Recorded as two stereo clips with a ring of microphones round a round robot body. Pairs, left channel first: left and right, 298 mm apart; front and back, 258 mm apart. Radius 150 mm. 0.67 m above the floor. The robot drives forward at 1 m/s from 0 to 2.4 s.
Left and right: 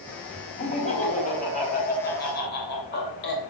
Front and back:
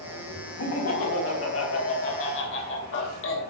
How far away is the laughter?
About 4.5 m.